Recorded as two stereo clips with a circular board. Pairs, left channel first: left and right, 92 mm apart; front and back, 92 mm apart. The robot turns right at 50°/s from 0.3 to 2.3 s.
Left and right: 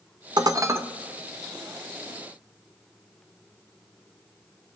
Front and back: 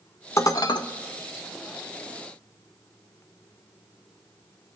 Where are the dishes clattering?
55° right, 0.8 m; by 0.8 s 30° right, 0.8 m.